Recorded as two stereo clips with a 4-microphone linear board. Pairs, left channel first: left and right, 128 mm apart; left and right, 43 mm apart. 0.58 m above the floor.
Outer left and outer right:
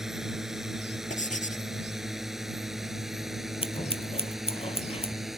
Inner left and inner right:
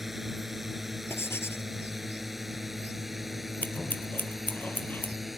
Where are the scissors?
50° left (ahead or behind).